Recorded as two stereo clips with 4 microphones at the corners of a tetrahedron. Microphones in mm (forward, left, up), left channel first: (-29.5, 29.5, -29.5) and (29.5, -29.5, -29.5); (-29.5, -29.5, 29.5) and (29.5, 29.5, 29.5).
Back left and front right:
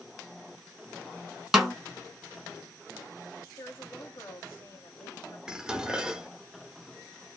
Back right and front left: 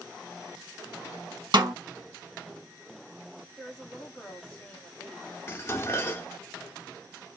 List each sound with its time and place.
1.5 s a snare drum: 40° left, 0.9 m
3.6 s a woman speaking: 155° left, 1.8 m
5.5 s dishes clattering: 120° right, 0.5 m